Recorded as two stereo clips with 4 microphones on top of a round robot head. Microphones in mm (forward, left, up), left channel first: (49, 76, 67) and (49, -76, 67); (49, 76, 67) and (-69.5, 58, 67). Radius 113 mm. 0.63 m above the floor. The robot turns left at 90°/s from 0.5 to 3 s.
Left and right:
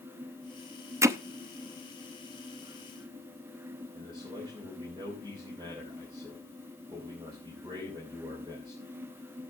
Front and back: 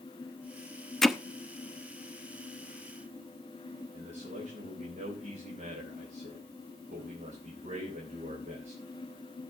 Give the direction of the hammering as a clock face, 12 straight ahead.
2 o'clock.